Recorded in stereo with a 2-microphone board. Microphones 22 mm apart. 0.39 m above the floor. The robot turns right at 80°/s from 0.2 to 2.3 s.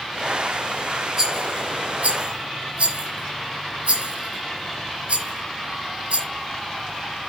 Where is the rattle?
25° right (ahead or behind), 7.5 m; by 6.3 s 65° right (ahead or behind), 7.5 m.